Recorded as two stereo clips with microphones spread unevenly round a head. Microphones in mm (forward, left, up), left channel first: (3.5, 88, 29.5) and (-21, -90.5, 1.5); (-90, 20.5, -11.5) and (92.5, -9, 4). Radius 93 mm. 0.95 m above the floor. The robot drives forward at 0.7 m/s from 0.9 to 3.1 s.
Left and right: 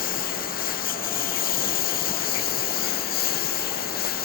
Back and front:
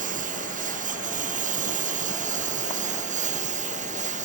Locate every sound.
0.0 s a lawn mower: 40° left